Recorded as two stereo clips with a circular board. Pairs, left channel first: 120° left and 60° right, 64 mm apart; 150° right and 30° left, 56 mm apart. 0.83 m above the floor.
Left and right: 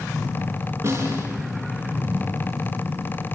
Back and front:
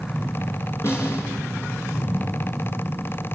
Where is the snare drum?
110° right, 7.5 m.